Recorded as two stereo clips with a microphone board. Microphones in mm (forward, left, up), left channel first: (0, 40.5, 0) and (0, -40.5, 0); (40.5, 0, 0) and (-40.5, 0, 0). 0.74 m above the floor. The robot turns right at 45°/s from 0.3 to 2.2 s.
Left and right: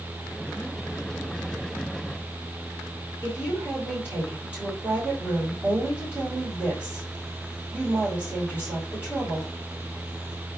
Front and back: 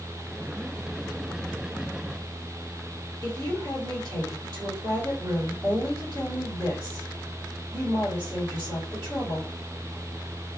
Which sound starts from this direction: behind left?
A woman speaking, at 3.2 s.